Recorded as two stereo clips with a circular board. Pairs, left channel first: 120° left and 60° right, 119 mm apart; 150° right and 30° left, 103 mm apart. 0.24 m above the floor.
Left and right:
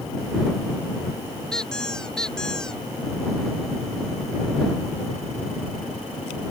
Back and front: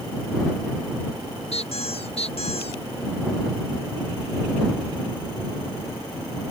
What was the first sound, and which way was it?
A squeak, 155° right.